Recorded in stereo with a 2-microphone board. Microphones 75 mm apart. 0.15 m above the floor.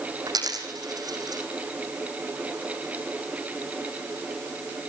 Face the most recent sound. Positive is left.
turn(degrees=-55)  # may be behind; listen again after turning